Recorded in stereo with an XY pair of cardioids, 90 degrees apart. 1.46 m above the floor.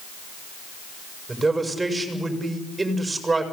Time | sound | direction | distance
1.3 | a man speaking | 20° right | 6.5 m